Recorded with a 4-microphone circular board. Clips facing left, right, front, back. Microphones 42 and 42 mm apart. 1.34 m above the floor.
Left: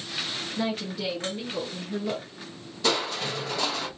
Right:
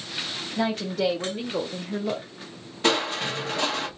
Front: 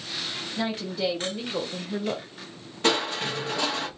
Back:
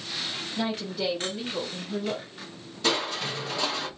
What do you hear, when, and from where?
0.6 s a woman speaking: 80° right, 1.1 m; by 2.2 s 10° right, 0.6 m
2.8 s crushing: 40° right, 1.2 m